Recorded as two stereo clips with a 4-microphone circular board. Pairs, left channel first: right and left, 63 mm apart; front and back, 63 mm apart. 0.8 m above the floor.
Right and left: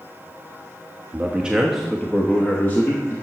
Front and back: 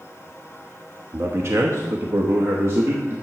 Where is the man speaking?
145° left, 0.9 m; by 3.1 s 135° right, 1.2 m.